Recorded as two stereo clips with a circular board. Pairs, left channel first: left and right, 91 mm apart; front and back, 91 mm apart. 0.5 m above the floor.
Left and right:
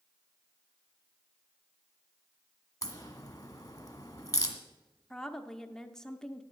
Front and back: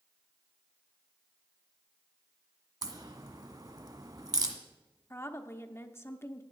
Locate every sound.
2.8 s a crack: 140° left, 1.5 m
5.1 s a woman speaking: 15° left, 0.8 m